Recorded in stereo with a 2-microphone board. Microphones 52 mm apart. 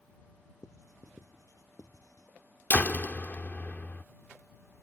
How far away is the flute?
I don't hear a flute.